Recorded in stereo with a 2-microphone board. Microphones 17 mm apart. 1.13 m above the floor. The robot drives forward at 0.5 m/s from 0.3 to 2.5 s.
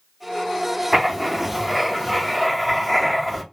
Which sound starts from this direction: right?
Writing, at 0.9 s.